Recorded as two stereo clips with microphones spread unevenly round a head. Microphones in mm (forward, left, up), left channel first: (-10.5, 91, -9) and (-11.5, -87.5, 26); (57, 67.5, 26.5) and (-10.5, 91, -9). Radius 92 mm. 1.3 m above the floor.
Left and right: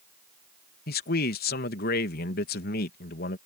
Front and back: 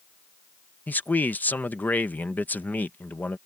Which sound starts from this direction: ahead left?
A man speaking, at 0.9 s.